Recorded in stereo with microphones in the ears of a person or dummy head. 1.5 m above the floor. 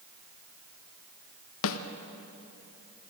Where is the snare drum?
70° left (ahead or behind), 1.2 m.